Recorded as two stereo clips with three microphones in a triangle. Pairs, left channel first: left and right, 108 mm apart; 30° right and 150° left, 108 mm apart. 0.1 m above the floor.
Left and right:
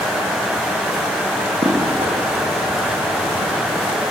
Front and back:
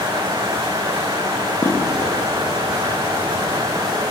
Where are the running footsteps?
90° right, 8 m; by 3.5 s 105° right, 6 m.